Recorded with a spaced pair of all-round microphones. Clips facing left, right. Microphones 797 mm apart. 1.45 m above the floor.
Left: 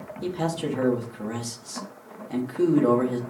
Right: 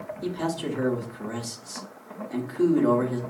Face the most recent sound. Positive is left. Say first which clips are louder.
# left 1 dB
turn(degrees=65)  # may be behind; listen again after turning